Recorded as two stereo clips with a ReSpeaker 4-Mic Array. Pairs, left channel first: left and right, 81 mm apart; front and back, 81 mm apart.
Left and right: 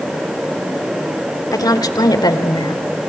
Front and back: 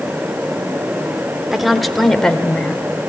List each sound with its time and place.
1.5 s a woman speaking: 95° left, 1.7 m; by 2.8 s 80° left, 2.5 m